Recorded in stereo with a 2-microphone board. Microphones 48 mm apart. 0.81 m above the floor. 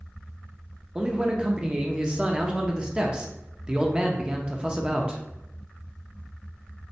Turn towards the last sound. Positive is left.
turn(degrees=-20)  # may be behind; listen again after turning